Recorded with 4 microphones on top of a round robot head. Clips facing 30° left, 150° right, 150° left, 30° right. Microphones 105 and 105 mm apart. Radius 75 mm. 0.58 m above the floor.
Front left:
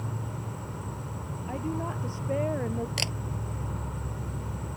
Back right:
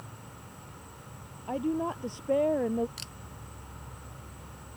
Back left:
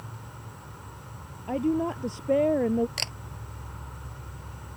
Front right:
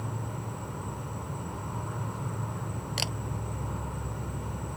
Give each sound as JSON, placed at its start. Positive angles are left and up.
{"t": 0.0, "sound": "an insect", "azimuth_deg": 10}
{"t": 1.5, "sound": "a woman speaking", "azimuth_deg": 140}
{"t": 3.0, "sound": "a camera shutter", "azimuth_deg": 50}